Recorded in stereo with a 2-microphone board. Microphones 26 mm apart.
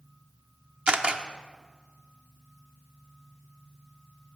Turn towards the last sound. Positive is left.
turn(degrees=-40)  # may be behind; listen again after turning